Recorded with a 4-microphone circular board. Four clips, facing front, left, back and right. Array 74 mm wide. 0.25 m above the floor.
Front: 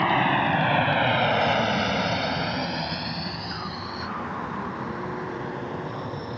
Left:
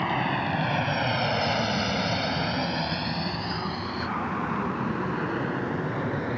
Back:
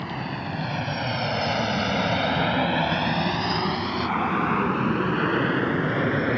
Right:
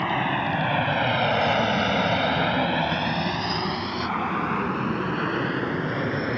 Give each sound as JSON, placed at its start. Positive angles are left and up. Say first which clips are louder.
{"t": 0.0, "sound": "an aircraft", "louder": "right 2 dB, front 10 dB", "azimuth_deg": -10}